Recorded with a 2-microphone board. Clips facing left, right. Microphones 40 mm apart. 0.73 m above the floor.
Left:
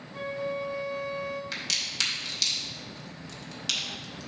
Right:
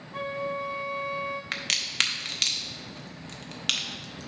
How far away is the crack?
About 0.8 m.